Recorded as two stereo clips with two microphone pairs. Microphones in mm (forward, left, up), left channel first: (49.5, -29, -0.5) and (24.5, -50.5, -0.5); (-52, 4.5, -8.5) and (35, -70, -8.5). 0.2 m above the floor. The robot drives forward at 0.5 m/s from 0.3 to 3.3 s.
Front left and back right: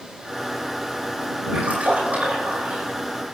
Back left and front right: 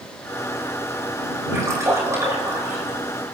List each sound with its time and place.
1.5 s a splash: 105° right, 8 m; by 3.0 s 110° right, 8 m